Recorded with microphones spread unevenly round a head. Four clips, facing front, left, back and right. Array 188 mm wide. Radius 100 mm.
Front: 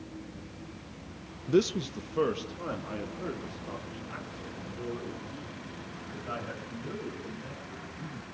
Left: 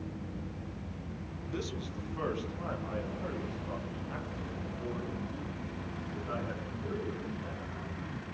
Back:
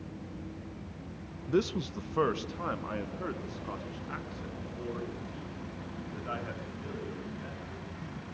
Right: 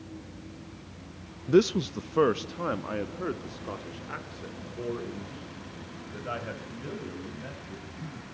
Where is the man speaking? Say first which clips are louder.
Right 17 dB, front 4 dB; 65° right, 0.5 m; by 8.2 s 100° right, 9 m.